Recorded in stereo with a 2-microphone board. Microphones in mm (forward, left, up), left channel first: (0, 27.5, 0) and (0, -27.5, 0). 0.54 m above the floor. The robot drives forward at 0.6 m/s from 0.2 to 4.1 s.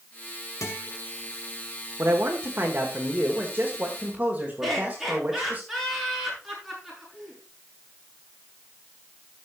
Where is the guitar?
70° left (ahead or behind), 2 m.